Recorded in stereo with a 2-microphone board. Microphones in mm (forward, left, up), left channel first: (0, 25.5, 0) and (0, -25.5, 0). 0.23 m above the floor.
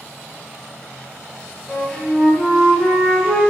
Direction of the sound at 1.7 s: 10° left (ahead or behind).